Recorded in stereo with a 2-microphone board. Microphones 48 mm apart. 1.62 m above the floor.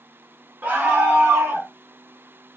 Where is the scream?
50° right (ahead or behind), 1.3 m; by 1.7 s 70° right (ahead or behind), 2 m.